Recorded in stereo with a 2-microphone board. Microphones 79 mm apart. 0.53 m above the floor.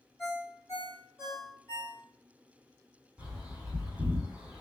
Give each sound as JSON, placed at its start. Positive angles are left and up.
{"t": 0.2, "sound": "a ringtone", "side_deg": 40, "distance_m": 1.8}
{"t": 3.2, "sound": "a bird", "side_deg": -10, "distance_m": 1.7}